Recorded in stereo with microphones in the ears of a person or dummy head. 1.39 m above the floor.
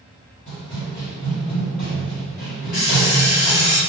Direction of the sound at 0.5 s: 30° left (ahead or behind).